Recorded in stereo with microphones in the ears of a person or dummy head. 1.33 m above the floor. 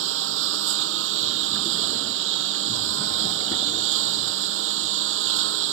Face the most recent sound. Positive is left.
turn(degrees=-80)